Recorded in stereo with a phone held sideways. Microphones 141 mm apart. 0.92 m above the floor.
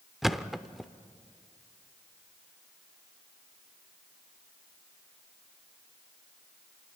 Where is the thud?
Centre (ahead or behind), 0.6 m.